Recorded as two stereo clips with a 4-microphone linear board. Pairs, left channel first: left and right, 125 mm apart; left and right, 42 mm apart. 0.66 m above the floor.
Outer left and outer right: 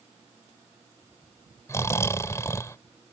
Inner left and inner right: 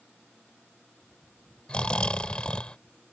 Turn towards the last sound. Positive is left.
turn(degrees=25)  # may be behind; listen again after turning